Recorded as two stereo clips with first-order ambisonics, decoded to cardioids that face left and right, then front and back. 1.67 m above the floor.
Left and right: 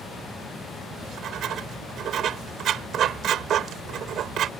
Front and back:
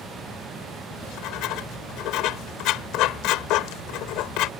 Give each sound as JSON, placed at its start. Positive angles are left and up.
{"t": 0.9, "sound": "writing", "azimuth_deg": -35}